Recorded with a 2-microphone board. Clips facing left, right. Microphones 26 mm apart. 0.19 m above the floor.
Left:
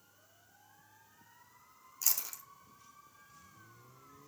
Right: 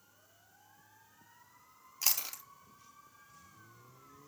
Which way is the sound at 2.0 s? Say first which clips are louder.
Right 3 dB; 40° right (ahead or behind).